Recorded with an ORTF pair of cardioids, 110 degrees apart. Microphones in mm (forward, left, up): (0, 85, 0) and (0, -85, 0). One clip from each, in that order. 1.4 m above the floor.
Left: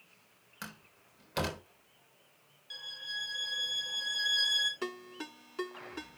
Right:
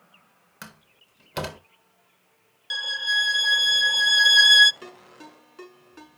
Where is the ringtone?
25° left, 6 m.